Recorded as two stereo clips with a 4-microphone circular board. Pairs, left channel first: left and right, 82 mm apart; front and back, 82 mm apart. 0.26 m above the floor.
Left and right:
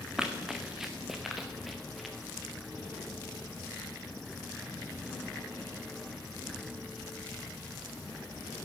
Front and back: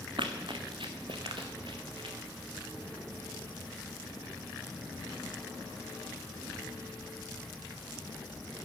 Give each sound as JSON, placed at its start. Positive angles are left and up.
{"t": 0.2, "sound": "running footsteps", "azimuth_deg": -170, "distance_m": 1.6}